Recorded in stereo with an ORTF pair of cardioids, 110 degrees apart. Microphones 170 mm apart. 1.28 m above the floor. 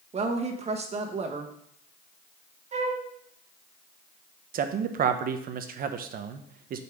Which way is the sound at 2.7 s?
40° right.